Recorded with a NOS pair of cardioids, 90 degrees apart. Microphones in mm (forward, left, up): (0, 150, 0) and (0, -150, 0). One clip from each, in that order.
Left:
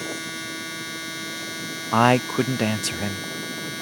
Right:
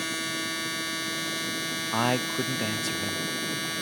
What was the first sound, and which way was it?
A machine running, 15° right.